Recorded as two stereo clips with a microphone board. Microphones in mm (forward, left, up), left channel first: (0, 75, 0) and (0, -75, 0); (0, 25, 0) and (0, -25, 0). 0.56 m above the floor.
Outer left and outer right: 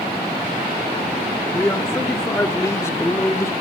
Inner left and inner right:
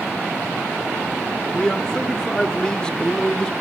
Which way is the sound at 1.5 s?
15° left (ahead or behind).